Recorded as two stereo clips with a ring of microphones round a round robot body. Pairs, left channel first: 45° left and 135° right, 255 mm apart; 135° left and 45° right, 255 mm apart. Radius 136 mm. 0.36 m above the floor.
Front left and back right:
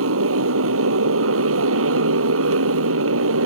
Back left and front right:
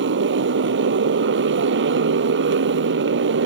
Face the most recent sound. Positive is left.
turn(degrees=-95)